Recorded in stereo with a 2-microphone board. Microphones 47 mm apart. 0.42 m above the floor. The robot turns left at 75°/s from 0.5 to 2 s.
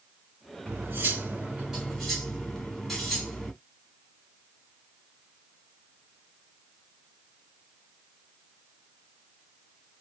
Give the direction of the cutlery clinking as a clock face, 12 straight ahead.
3 o'clock.